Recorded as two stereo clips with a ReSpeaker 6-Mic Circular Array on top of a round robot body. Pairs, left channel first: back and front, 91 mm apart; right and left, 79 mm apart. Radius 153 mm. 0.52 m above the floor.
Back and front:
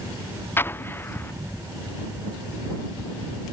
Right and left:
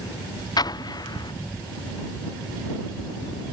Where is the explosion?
115° right.